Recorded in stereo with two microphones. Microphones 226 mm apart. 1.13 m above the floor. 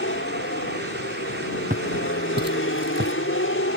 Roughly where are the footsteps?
Right.